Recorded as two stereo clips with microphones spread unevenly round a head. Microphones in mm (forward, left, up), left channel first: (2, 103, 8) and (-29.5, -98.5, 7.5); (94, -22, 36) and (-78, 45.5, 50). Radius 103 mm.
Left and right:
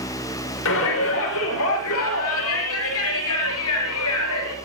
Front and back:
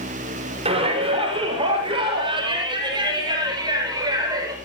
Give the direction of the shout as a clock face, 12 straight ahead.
9 o'clock.